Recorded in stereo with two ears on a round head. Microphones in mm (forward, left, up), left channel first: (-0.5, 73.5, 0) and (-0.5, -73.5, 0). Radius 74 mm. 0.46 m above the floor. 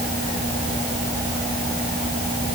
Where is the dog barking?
I don't hear a dog barking.